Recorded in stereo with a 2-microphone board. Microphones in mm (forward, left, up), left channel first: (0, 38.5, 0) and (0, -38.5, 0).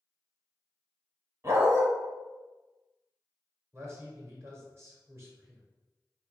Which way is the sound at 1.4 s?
40° right (ahead or behind).